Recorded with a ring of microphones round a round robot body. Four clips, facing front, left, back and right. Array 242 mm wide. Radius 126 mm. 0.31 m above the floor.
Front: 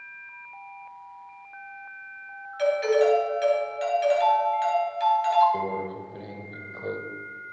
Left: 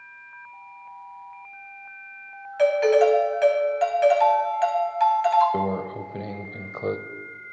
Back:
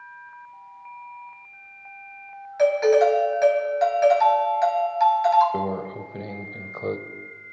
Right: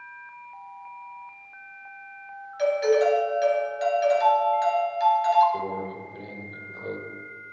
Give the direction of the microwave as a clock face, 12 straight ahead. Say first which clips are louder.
Left 4 dB, back 2 dB; 8 o'clock.